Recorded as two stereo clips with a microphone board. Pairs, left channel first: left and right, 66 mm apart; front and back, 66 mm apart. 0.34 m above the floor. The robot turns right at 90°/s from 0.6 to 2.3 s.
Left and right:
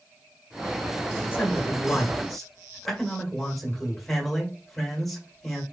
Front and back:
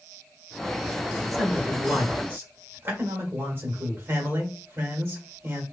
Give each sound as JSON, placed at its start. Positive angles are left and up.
{"t": 1.3, "sound": "a man speaking", "azimuth_deg": 85, "distance_m": 1.2}